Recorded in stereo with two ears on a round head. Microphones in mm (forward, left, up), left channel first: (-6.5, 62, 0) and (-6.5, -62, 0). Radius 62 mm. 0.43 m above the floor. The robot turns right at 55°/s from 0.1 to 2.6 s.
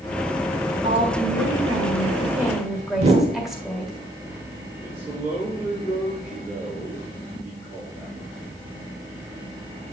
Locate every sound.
0.8 s a woman speaking: 100° right, 1.8 m; by 3.9 s 5° right, 1.8 m
3.0 s a whoosh: 50° right (ahead or behind), 1.3 m
4.8 s a man speaking: 40° right (ahead or behind), 4 m